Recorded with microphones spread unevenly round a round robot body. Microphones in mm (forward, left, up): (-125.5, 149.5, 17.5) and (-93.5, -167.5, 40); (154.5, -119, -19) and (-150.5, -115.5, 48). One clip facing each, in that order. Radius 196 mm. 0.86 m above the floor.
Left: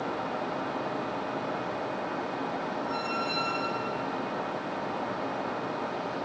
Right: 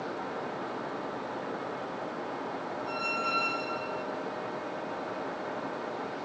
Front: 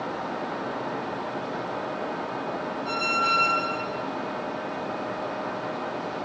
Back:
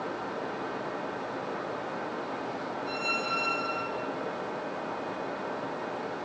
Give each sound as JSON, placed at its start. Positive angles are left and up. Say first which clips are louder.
{"t": 2.9, "sound": "a squeak", "louder": "left 3 dB, front 3 dB", "azimuth_deg": -5, "distance_m": 1.9}